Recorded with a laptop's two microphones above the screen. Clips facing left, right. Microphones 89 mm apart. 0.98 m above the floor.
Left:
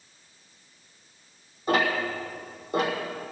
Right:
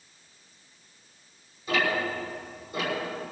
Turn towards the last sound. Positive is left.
turn(degrees=55)  # may be behind; listen again after turning